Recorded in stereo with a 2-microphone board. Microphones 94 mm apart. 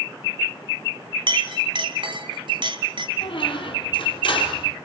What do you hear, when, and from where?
1.3 s a clink: 60° right (ahead or behind), 2.5 m
3.2 s a squeak: 55° left (ahead or behind), 3.5 m